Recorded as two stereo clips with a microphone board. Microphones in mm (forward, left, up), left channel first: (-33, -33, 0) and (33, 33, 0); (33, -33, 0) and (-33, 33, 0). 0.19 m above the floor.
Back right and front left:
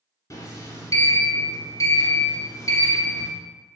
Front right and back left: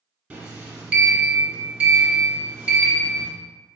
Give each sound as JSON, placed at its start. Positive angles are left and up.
{"t": 0.3, "sound": "a sliding door", "azimuth_deg": -155, "distance_m": 1.3}